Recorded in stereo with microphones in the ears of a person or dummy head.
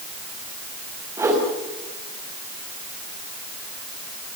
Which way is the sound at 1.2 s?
10° right (ahead or behind).